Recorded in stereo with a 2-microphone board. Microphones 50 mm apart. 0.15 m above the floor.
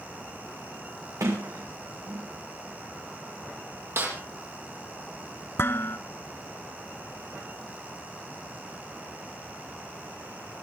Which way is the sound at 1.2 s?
80° right.